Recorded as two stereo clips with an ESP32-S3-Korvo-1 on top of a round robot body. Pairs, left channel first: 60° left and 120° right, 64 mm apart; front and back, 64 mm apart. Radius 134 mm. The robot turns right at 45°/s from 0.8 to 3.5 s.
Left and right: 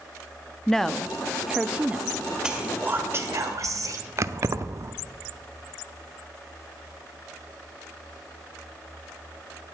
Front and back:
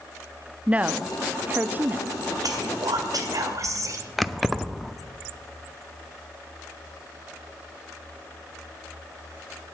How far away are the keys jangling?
About 0.7 m.